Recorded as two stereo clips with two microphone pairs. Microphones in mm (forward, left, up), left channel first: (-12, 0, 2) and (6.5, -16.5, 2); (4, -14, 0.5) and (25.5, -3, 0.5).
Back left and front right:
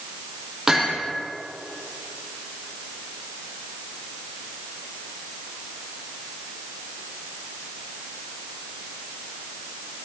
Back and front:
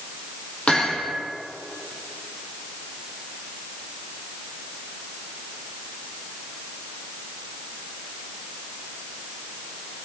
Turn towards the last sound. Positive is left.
turn(degrees=-120)